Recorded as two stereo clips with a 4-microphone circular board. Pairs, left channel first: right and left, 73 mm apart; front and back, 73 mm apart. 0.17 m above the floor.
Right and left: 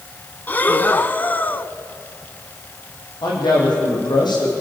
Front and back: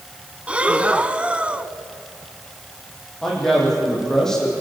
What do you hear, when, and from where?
0.5 s breathing: 125° right, 0.8 m
3.2 s a man speaking: 85° right, 8.5 m